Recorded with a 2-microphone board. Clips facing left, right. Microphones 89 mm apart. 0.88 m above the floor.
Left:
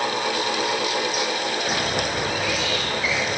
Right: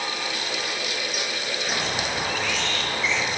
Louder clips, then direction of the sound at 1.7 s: Left 3 dB; 10° left (ahead or behind).